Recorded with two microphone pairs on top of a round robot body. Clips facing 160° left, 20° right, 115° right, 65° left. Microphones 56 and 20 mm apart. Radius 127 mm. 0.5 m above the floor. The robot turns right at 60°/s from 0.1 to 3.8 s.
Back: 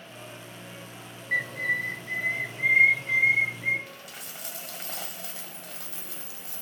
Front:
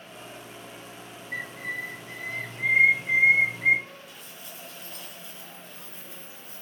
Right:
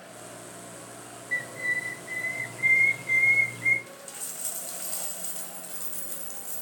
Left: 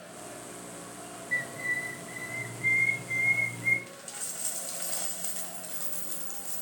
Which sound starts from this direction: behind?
A bird, at 1.3 s.